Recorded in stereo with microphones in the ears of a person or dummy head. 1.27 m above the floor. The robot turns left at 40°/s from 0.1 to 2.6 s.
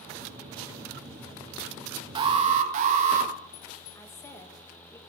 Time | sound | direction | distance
2.1 | an alarm | 30° right (ahead or behind) | 1.2 m
4.0 | a woman speaking | 15° left (ahead or behind) | 1.4 m